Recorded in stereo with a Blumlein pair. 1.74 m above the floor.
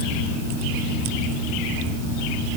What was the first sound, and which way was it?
Only background noise.